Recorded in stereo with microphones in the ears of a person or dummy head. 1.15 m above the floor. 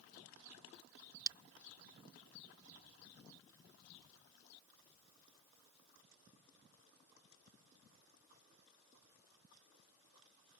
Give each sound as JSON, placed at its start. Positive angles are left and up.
{"t": 1.3, "sound": "breaking glass", "side_deg": -20}